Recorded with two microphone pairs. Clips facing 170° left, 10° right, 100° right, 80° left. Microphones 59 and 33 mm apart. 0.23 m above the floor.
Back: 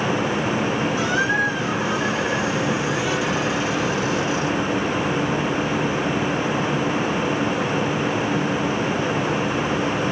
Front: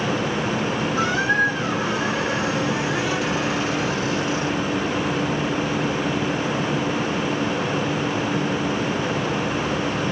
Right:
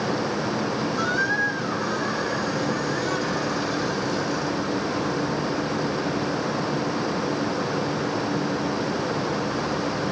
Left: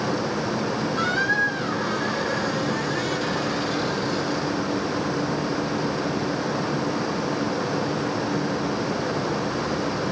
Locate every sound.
1.0 s a squeak: 35° left, 1.8 m